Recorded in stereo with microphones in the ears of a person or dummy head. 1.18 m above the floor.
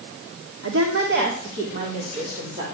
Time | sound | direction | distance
0.6 | a woman speaking | 75° right (ahead or behind) | 2.5 m